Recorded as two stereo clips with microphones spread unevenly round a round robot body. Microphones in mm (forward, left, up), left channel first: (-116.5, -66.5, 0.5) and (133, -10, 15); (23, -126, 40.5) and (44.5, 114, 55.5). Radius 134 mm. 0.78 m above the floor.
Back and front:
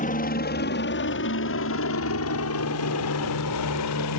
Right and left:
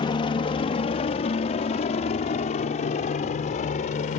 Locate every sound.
0.0 s a helicopter: 145° right; by 4.2 s 155° right